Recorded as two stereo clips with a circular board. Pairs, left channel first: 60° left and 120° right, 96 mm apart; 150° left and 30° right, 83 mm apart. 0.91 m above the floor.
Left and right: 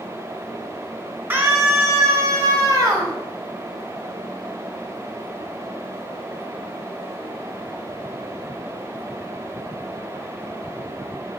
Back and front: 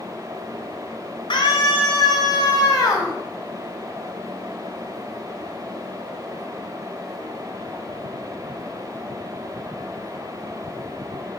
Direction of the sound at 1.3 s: 170° left.